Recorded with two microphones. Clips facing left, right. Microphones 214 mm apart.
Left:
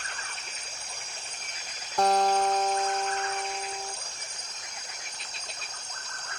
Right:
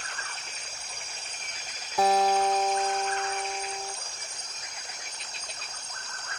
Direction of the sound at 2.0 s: 5° right (ahead or behind).